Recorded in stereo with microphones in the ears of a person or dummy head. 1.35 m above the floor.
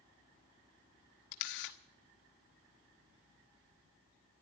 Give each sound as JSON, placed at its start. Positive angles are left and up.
{"t": 1.3, "sound": "a camera shutter", "side_deg": 60, "distance_m": 1.2}